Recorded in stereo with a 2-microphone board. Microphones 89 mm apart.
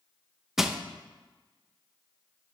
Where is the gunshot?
No gunshot in this recording.